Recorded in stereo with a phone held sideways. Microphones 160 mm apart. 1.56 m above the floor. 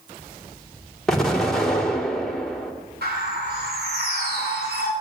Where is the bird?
85° right, 9.5 m.